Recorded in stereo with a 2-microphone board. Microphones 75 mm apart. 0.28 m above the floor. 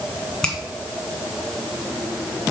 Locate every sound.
0.4 s a finger snap: 10° left (ahead or behind), 1.9 m